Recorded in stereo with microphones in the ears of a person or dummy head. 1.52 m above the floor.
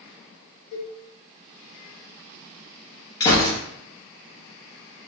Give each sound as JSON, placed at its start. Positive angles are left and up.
{"t": 0.7, "sound": "a cowbell", "side_deg": 70, "distance_m": 1.6}
{"t": 3.2, "sound": "a gunshot", "side_deg": 25, "distance_m": 0.9}